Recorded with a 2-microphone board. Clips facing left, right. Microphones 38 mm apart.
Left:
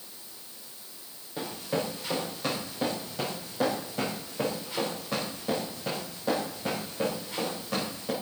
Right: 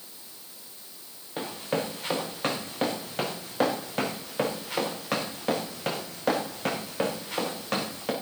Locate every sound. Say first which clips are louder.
1.4 s running footsteps: right 1 dB; 40° right (ahead or behind), 4 m; by 8.1 s 80° right, 4.5 m